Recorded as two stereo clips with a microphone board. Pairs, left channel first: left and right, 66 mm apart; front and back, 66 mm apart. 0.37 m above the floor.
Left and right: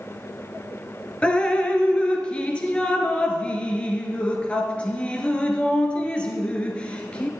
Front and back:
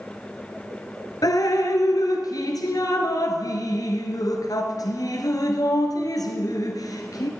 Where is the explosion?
No explosion in this recording.